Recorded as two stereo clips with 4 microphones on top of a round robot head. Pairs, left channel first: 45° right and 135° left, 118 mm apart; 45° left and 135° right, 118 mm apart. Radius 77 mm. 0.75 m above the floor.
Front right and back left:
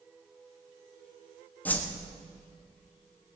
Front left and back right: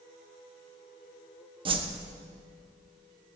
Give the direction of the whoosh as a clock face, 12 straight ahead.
4 o'clock.